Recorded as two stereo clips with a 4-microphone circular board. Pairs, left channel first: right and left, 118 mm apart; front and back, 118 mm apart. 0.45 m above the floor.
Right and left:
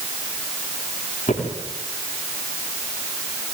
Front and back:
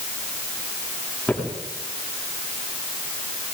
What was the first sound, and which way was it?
Footsteps, 85° right.